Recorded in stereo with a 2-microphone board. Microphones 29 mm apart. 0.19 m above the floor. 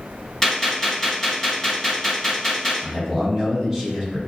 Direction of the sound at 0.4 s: 10° left (ahead or behind).